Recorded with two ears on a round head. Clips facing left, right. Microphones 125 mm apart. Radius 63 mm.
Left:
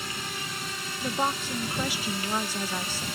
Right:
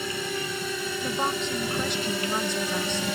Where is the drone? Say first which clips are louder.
Right 7 dB; 75° right (ahead or behind); by 3.1 s 70° right (ahead or behind).